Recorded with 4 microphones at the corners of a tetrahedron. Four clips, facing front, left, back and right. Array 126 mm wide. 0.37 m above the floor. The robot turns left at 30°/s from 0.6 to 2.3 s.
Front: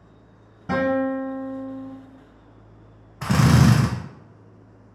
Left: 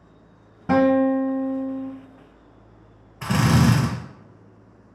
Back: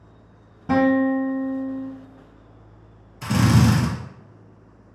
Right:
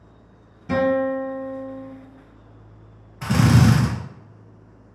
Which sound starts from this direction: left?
A guitar, at 0.7 s.